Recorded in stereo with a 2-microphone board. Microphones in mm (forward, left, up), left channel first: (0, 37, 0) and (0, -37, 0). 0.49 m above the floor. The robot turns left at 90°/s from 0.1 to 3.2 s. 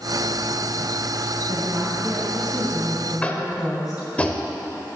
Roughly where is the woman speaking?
Right.